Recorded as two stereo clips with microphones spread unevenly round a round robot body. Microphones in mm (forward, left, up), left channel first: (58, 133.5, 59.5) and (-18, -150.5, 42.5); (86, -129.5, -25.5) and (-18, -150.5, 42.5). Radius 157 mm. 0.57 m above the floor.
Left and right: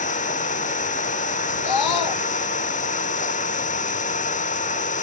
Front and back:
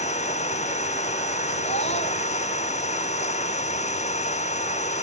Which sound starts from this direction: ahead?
An engine running, at 0.0 s.